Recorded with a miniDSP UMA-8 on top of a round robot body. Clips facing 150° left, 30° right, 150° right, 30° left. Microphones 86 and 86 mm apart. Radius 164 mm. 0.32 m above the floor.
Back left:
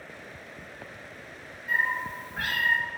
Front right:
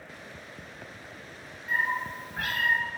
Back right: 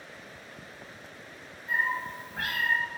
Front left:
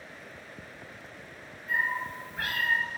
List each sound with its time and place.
1.7 s a cat meowing: 120° right, 1.2 m